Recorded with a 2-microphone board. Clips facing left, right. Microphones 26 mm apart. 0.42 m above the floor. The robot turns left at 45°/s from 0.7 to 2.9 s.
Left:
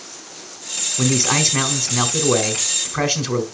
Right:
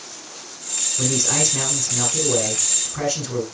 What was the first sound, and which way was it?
A man speaking, 150° left.